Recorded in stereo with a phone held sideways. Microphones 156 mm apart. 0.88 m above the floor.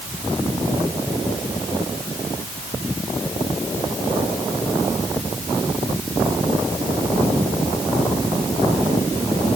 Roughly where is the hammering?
I don't hear hammering.